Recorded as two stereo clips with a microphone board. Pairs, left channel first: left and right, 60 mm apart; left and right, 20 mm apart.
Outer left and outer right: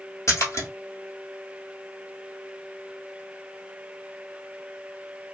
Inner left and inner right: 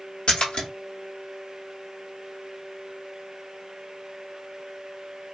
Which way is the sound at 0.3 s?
50° left (ahead or behind).